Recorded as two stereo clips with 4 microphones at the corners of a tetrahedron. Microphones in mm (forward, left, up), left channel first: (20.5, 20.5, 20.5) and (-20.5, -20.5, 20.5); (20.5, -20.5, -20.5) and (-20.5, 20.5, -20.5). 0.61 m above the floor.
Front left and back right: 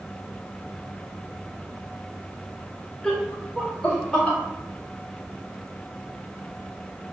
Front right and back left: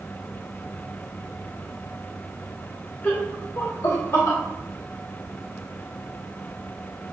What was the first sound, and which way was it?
Laughter, 35° right.